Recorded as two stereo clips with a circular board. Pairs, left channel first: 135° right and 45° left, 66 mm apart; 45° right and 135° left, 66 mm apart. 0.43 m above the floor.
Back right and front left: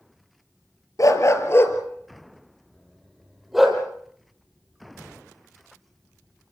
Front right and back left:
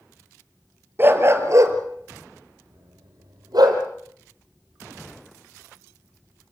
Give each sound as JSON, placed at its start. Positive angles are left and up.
{"t": 1.0, "sound": "a dog barking", "azimuth_deg": -170, "distance_m": 3.0}